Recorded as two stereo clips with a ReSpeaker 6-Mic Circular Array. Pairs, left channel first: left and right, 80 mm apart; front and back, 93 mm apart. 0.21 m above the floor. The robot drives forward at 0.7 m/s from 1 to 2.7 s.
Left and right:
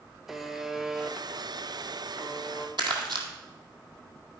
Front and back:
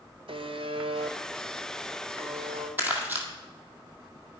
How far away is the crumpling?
About 1.6 m.